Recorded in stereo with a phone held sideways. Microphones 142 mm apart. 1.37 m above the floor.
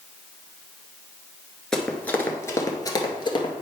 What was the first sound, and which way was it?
Running footsteps, 5° left (ahead or behind).